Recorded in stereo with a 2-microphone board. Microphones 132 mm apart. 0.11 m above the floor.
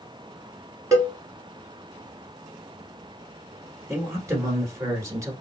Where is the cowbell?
25° right (ahead or behind), 1.5 m.